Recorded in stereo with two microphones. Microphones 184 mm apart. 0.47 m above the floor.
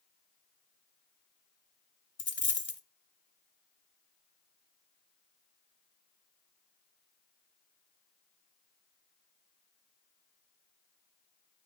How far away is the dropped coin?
About 0.8 m.